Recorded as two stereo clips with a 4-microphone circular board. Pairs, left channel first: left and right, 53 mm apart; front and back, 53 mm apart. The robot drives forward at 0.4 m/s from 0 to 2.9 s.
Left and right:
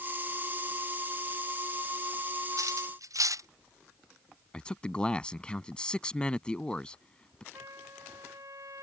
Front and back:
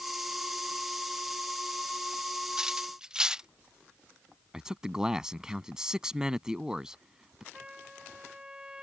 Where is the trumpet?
105° right.